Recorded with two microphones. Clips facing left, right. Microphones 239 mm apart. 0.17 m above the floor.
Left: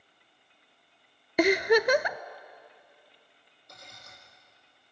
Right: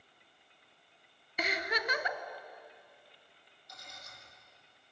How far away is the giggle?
About 0.5 m.